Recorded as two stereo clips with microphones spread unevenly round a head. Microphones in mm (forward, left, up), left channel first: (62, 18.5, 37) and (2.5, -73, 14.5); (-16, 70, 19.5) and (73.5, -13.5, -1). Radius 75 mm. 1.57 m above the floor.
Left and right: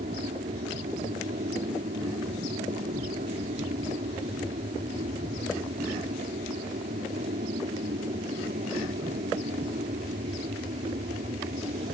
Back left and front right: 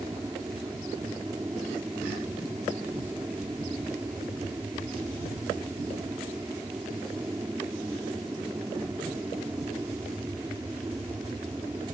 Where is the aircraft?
120° right.